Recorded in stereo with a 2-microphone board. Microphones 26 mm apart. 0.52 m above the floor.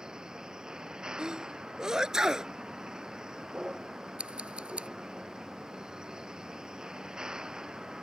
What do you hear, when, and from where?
0.0 s a vehicle: 35° right (ahead or behind)
1.2 s a sneeze: 20° right (ahead or behind)
4.2 s scissors: 50° right (ahead or behind)